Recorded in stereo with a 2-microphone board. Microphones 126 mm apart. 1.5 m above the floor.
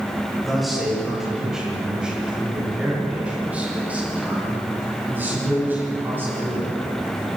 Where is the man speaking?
Centre (ahead or behind), 10 m; by 7.3 s 15° right (ahead or behind), 18 m.